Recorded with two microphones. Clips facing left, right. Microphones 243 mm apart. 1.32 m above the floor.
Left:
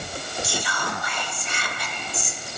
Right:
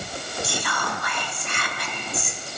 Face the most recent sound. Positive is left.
turn(degrees=-65)  # may be behind; listen again after turning